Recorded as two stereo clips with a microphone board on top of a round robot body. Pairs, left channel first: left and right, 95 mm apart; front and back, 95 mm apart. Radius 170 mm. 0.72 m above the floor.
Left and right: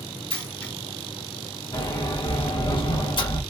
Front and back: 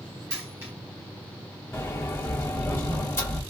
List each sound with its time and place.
0.3 s a dropped coin: 120° left, 1.1 m
1.7 s a sliding door: 60° left, 1.1 m